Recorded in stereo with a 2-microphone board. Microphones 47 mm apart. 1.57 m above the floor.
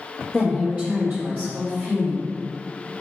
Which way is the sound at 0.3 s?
Centre (ahead or behind).